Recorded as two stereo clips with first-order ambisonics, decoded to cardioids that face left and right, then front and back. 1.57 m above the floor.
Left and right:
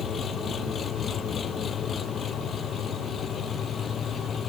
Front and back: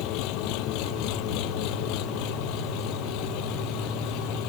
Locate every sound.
0.0 s an engine running: 25° left